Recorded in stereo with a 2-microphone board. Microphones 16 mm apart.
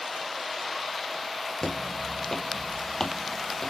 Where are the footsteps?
40° left (ahead or behind), 1.0 m; by 3.7 s 20° left (ahead or behind), 1.8 m.